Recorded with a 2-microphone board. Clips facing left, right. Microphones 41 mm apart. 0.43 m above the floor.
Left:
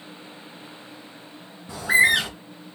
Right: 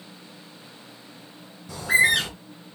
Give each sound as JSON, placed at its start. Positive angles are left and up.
{"t": 1.7, "sound": "a bird", "side_deg": 20, "distance_m": 2.5}